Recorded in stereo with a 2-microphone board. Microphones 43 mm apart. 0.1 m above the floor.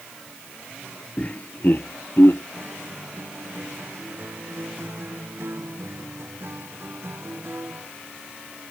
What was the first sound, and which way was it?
Laughter, 30° left (ahead or behind).